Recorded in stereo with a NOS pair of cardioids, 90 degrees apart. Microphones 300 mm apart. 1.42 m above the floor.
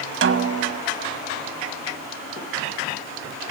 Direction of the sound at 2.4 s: 45° left.